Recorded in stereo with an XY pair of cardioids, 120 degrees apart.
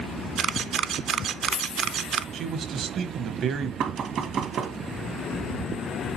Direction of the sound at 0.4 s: 55° right.